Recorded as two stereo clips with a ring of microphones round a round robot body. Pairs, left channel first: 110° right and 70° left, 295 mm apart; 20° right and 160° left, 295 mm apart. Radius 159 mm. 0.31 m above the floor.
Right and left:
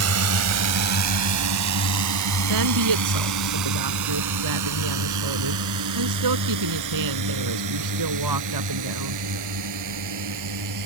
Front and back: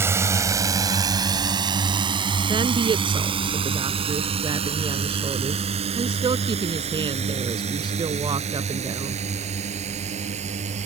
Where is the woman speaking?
85° left.